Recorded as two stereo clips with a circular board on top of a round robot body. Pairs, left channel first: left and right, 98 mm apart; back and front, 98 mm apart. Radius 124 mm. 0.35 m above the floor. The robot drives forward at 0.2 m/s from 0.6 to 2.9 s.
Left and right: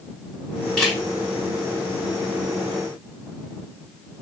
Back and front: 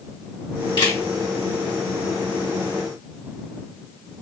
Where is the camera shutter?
175° left, 2 m.